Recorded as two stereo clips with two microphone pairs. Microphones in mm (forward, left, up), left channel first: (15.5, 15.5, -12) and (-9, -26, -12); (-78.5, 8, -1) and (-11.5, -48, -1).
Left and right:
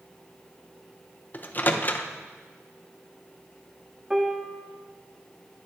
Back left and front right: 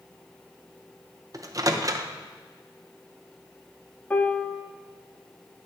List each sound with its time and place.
1.3 s a microwave: 10° left, 0.6 m
4.1 s a piano: straight behind, 0.7 m